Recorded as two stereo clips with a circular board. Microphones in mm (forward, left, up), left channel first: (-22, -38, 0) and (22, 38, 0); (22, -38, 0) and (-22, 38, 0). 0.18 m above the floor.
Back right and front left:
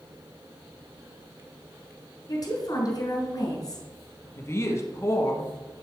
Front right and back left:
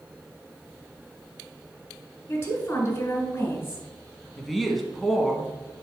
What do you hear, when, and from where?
2.3 s a woman speaking: 110° right, 2.5 m
4.4 s a woman speaking: 150° right, 1.3 m